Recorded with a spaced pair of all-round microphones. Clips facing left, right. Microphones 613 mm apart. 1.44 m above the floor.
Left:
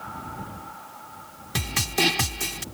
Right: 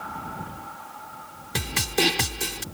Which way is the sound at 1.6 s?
5° left (ahead or behind).